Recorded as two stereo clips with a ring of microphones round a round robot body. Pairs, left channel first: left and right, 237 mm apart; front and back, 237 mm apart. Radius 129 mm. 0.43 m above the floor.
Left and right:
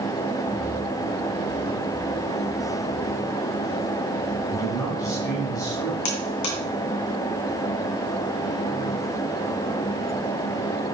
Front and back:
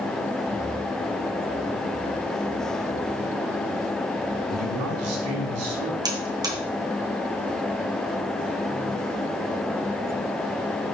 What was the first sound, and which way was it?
A man speaking, 170° left.